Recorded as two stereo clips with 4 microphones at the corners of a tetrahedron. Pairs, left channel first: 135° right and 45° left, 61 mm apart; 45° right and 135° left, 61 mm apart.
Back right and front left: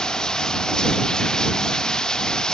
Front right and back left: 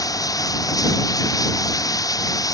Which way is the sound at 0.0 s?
60° right.